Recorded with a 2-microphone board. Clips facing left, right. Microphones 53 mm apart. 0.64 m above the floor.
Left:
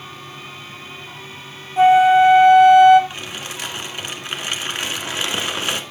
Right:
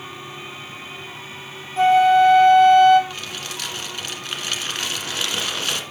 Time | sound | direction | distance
1.8 | a flute | 15° left (ahead or behind) | 1.0 m
3.1 | crumpling | 20° left (ahead or behind) | 1.8 m